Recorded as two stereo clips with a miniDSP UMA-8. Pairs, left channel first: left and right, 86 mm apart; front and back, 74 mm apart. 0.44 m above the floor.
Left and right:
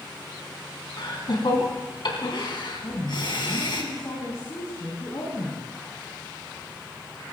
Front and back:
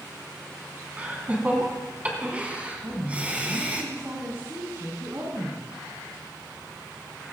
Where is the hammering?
I don't hear hammering.